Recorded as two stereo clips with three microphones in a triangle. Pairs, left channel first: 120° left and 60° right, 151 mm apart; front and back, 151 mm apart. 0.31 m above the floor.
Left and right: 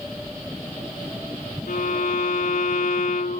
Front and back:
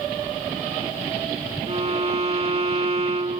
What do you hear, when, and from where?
1.7 s a violin: 135° left, 0.7 m